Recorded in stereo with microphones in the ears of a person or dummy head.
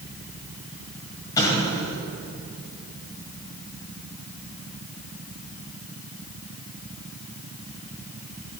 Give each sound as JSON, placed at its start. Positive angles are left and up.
{"t": 1.4, "sound": "an explosion", "side_deg": 20, "distance_m": 2.0}